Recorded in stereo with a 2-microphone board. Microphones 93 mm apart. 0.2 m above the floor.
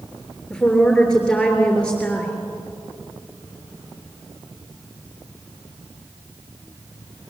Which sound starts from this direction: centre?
A woman speaking, at 0.5 s.